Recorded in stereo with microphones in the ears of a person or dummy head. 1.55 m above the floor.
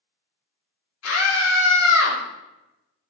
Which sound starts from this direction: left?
A scream, at 1.0 s.